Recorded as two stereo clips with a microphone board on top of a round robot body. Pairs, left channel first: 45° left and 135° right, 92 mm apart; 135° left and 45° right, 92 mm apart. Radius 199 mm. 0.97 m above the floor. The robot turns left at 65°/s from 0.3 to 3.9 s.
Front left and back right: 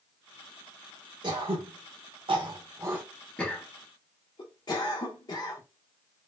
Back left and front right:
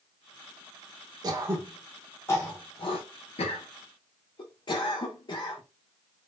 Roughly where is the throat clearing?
Right.